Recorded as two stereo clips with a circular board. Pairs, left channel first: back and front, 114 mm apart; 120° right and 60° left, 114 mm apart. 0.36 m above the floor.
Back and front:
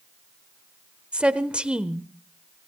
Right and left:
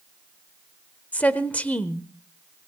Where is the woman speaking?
65° right, 1.0 m.